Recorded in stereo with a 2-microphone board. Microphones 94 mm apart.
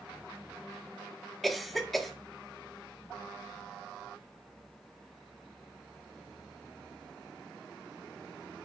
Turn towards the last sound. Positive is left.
turn(degrees=0)  # may be behind; listen again after turning